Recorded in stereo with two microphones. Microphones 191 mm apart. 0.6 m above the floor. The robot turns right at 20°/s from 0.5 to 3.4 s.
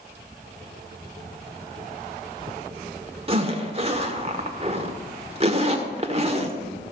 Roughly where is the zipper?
Right.